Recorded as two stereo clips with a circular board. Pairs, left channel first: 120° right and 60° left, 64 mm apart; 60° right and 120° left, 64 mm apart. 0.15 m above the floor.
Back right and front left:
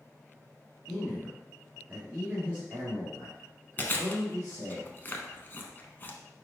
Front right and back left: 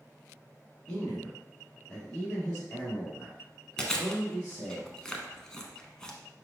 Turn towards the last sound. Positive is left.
turn(degrees=-130)